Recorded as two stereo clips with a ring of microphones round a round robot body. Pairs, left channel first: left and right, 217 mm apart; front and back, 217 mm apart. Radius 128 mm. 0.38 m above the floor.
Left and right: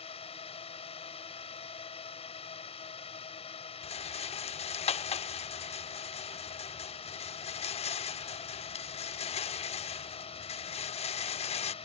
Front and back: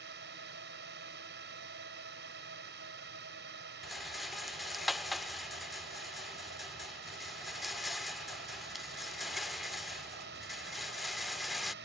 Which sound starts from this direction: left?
A rattle, at 3.8 s.